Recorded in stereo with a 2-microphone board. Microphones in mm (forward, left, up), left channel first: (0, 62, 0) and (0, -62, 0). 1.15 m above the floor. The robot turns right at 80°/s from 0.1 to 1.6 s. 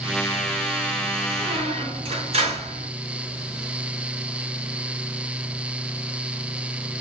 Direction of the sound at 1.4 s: 45° right (ahead or behind).